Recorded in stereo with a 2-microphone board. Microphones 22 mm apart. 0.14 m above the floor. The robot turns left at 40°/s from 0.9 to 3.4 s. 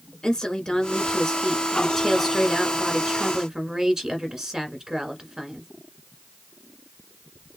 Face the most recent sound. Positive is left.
turn(degrees=-50)